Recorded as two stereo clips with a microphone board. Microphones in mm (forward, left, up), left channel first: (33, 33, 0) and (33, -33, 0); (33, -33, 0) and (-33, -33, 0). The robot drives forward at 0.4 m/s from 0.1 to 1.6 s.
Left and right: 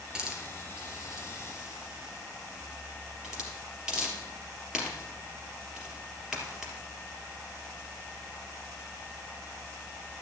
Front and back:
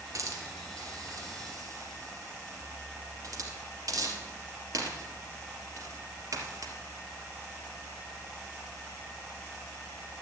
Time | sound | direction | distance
0.1 | a hiss | 165° right | 2.5 m